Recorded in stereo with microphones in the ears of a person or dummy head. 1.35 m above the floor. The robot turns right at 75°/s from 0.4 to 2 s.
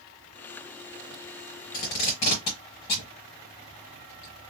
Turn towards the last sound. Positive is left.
turn(degrees=30)  # may be behind; listen again after turning